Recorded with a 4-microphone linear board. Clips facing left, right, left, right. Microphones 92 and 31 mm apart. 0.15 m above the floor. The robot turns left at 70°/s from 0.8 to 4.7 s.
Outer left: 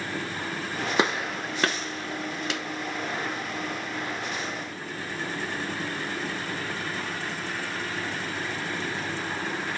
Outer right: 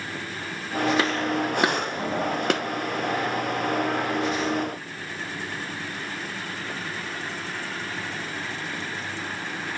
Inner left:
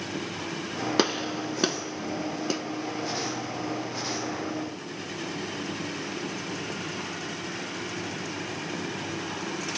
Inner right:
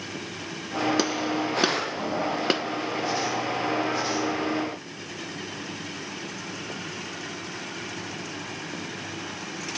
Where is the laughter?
No laughter in this recording.